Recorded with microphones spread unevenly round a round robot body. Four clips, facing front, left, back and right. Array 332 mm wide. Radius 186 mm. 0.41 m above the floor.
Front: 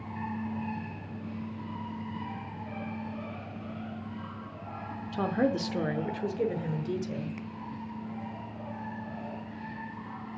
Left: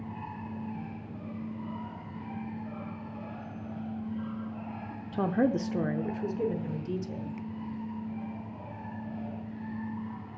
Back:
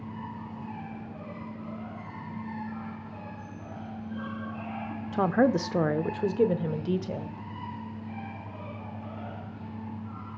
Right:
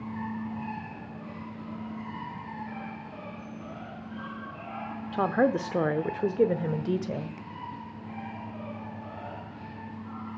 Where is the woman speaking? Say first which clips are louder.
Right 2 dB, back 4 dB; 155° left, 0.9 m; by 7.4 s 105° right, 1.7 m.